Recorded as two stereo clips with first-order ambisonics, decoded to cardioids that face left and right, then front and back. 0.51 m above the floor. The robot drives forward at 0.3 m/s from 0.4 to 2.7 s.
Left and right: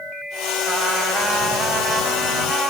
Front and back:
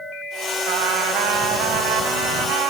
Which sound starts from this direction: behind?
A trumpet, at 0.7 s.